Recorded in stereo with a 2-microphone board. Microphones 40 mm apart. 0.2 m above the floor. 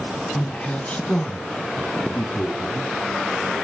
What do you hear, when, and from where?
0.3 s a man speaking: 25° left (ahead or behind), 1.5 m; by 2.9 s 30° left (ahead or behind), 2.5 m